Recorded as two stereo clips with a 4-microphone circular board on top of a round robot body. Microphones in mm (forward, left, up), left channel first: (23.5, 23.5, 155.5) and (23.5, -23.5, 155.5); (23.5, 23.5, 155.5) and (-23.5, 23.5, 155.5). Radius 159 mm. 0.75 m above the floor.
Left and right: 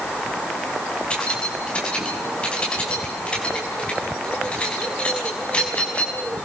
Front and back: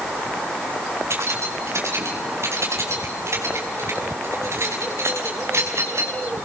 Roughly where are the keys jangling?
Behind left.